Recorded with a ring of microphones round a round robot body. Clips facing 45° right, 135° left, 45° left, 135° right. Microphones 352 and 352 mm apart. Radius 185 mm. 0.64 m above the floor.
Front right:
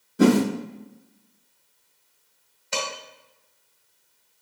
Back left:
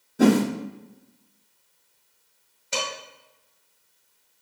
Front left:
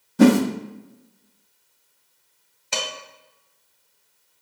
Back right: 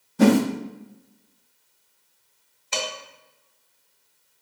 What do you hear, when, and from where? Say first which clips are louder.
0.2 s a whoosh: front right 1 dB, front left 2 dB; 40° left, 0.8 m
2.7 s dishes clattering: even, back right 1 dB; 55° left, 2 m